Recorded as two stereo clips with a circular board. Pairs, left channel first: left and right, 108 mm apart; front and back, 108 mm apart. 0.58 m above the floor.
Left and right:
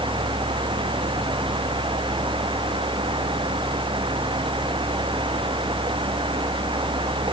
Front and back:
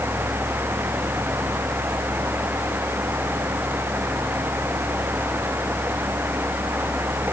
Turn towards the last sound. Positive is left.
No sound to turn to.